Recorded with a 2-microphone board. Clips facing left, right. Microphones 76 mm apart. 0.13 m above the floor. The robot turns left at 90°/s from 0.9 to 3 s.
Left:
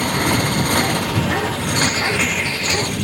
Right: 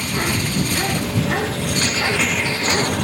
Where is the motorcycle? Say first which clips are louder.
Left 4 dB; 125° left; by 3.0 s 60° right.